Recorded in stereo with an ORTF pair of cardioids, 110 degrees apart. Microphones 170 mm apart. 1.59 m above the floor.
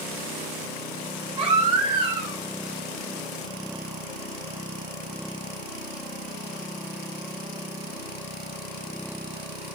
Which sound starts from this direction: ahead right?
A baby crying, at 1.4 s.